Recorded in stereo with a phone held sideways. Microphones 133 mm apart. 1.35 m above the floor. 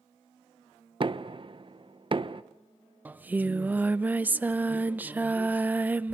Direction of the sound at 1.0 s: 40° right (ahead or behind).